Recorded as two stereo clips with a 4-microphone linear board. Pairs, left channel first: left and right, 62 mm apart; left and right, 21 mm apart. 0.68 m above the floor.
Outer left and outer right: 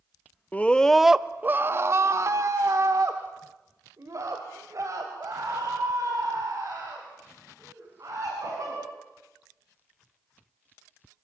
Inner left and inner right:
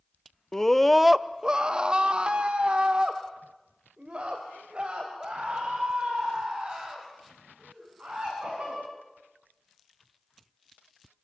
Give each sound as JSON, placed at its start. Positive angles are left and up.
{"t": 0.5, "sound": "a scream", "side_deg": 25, "distance_m": 0.7}